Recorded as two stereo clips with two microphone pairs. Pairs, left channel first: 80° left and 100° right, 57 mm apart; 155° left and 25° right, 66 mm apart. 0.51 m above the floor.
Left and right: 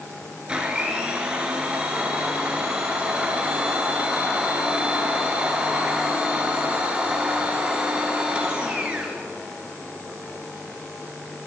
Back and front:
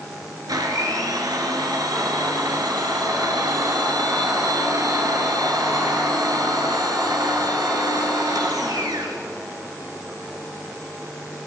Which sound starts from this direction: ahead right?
A blender, at 0.5 s.